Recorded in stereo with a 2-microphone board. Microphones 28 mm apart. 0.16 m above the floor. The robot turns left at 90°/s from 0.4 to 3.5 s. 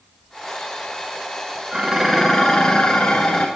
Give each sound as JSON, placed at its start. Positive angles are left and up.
{"t": 1.7, "sound": "dishes clattering", "azimuth_deg": -140, "distance_m": 1.3}